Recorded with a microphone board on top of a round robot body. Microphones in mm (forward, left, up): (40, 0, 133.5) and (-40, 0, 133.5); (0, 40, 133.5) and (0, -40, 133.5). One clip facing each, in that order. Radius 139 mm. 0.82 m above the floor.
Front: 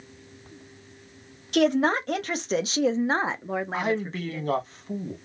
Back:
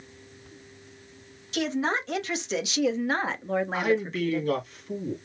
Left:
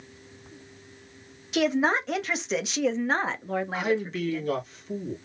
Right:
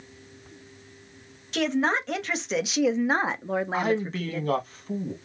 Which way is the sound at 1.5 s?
10° left.